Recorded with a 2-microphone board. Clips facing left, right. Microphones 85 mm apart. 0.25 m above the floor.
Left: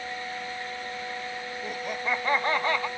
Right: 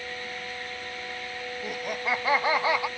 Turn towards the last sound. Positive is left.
turn(degrees=-10)  # may be behind; listen again after turning